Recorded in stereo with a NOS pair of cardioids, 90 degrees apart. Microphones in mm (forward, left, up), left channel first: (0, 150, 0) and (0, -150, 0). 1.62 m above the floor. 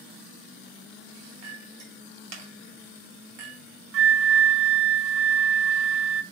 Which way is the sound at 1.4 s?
65° right.